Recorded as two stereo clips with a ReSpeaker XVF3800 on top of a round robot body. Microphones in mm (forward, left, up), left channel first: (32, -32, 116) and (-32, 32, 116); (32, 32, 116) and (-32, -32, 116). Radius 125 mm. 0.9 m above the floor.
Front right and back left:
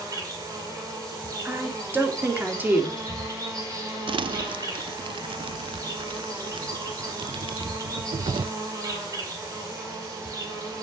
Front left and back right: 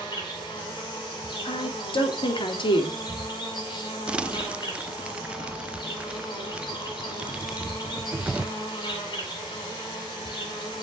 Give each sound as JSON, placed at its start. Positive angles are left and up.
{"t": 0.0, "sound": "an insect", "azimuth_deg": 80, "distance_m": 5.0}
{"t": 1.4, "sound": "a woman speaking", "azimuth_deg": 65, "distance_m": 2.5}
{"t": 4.1, "sound": "crumpling", "azimuth_deg": 145, "distance_m": 0.6}